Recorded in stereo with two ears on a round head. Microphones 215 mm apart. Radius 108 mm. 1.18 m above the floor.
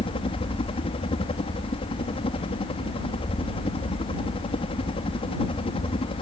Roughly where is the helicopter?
Left.